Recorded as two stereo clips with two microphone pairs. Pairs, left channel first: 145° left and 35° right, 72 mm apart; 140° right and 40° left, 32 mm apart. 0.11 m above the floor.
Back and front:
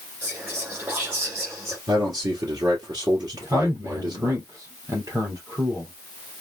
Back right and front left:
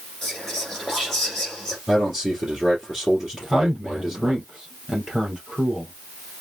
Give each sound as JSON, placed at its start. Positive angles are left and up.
{"t": 0.2, "sound": "whispering", "azimuth_deg": -60, "distance_m": 2.0}
{"t": 1.9, "sound": "a man speaking", "azimuth_deg": -40, "distance_m": 3.5}
{"t": 3.3, "sound": "a man speaking", "azimuth_deg": -40, "distance_m": 2.5}